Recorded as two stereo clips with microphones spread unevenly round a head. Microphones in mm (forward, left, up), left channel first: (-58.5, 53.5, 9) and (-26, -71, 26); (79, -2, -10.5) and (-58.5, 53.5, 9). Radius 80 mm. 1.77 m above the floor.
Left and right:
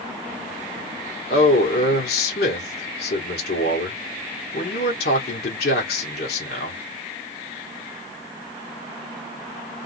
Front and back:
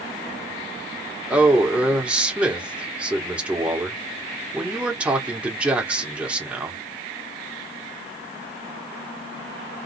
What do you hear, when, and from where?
1.3 s a man speaking: 80° left, 1.7 m